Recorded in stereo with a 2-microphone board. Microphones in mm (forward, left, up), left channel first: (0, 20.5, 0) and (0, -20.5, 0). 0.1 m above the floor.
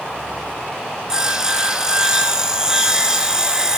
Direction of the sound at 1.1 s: 15° right (ahead or behind).